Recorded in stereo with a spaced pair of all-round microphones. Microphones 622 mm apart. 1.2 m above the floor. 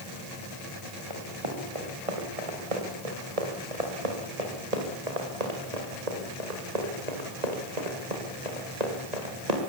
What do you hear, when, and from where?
1.1 s running footsteps: 50° right (ahead or behind), 7 m; by 9.7 s 75° right (ahead or behind), 7 m